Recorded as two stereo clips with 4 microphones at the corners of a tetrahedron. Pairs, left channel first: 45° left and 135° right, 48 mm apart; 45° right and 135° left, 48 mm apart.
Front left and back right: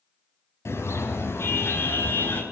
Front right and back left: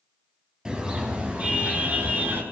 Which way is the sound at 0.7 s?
65° left.